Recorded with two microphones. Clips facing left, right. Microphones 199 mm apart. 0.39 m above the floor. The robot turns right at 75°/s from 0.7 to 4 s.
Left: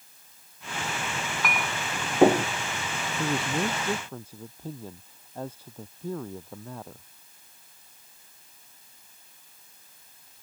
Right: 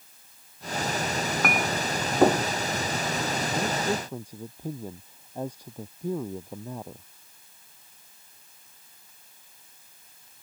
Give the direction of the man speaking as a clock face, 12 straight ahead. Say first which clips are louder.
Left 5 dB; 8 o'clock.